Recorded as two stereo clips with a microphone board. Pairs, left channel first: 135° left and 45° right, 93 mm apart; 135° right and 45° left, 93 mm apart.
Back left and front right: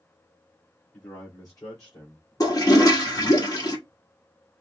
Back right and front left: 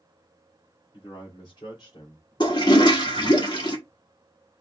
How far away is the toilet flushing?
About 1.4 m.